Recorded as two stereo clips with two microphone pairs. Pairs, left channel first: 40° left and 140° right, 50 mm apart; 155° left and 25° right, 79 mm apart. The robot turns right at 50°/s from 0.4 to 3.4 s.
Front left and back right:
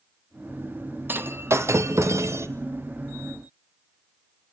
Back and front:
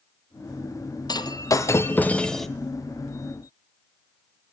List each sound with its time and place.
1.1 s breaking glass: 175° left, 1.0 m; by 2.5 s 115° right, 1.0 m